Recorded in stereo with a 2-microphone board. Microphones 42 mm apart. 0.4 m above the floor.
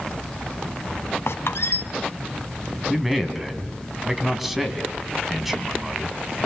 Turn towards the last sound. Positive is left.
turn(degrees=-5)  # may be behind; listen again after turning